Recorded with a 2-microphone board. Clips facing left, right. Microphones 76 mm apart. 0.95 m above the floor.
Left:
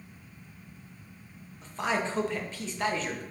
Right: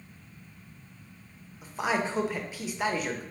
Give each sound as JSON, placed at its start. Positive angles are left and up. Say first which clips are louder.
{"t": 1.6, "sound": "a man speaking", "louder": "right 1 dB", "side_deg": -10, "distance_m": 0.5}